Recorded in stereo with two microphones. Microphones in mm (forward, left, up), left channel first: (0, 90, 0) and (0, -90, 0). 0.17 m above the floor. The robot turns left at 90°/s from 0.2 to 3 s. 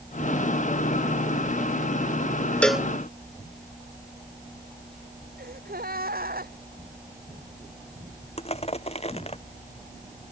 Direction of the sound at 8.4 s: 35° left (ahead or behind).